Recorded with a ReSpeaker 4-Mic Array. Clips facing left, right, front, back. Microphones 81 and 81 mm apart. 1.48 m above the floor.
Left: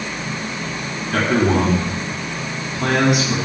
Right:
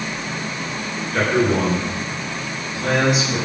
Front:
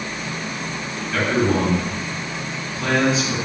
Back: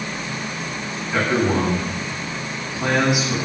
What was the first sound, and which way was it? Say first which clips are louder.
A man speaking: left 1 dB, even; 110° left.